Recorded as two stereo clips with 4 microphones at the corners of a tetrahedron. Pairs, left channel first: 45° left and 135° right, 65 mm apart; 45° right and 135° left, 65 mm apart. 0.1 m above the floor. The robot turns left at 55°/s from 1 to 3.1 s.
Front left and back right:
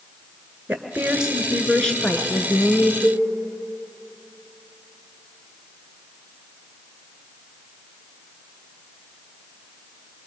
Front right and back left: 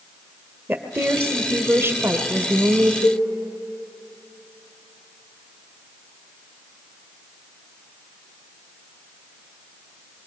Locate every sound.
0.7 s a woman speaking: 165° left, 1.5 m; by 2.9 s 60° left, 1.5 m
3.0 s a cowbell: 75° right, 8.5 m; by 3.2 s 80° right, 8.5 m